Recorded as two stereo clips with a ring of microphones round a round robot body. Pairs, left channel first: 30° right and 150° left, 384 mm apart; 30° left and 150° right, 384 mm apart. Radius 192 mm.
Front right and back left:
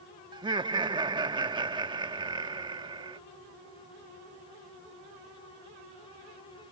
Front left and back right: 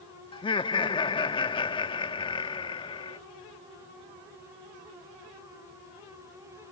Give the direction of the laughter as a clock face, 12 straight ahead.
9 o'clock.